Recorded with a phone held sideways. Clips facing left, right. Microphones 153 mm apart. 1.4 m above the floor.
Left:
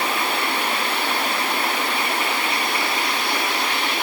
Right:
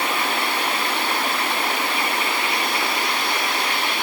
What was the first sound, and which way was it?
Only background noise.